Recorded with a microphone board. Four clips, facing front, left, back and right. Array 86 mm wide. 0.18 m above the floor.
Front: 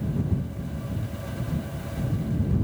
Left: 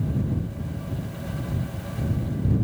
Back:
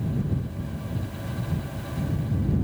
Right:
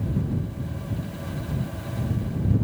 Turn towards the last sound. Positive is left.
No sound to turn to.